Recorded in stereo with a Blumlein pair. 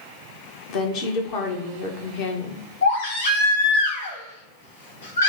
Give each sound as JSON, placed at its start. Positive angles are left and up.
{"t": 0.7, "sound": "a woman speaking", "azimuth_deg": 40, "distance_m": 1.2}
{"t": 2.8, "sound": "a baby crying", "azimuth_deg": 65, "distance_m": 2.5}